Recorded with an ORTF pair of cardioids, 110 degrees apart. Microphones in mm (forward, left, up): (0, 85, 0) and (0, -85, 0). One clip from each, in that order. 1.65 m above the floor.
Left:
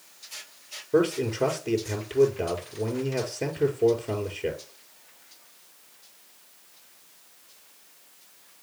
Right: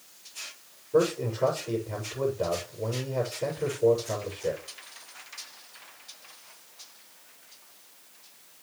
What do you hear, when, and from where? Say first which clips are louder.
0.9 s a man speaking: left 1 dB; 70° left, 5.5 m